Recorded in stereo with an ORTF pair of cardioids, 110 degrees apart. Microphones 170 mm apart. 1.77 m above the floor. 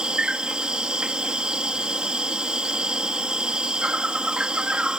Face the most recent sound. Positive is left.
turn(degrees=-5)